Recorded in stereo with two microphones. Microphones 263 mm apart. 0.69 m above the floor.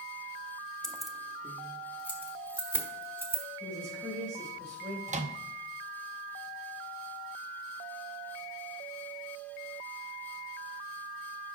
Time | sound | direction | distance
0.8 | keys jangling | 5° left (ahead or behind) | 0.5 m
3.6 | a woman speaking | 35° right (ahead or behind) | 3.5 m
5.1 | a microwave | 30° right (ahead or behind) | 0.6 m